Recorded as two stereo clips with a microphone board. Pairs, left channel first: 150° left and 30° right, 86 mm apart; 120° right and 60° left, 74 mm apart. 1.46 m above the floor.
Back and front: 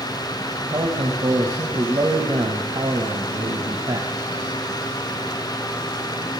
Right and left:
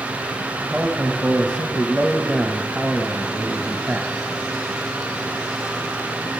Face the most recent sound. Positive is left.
turn(degrees=-25)